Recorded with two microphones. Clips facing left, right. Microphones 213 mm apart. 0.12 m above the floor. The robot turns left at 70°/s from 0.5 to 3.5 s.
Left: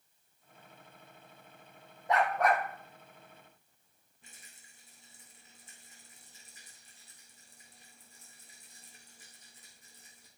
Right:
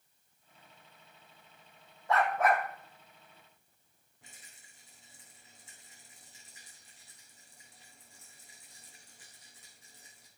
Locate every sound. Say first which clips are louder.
2.1 s a dog barking: even; 20° left, 1.9 m; by 2.6 s 20° right, 1.9 m
4.2 s a rattle: right 1 dB; 75° right (ahead or behind), 3.5 m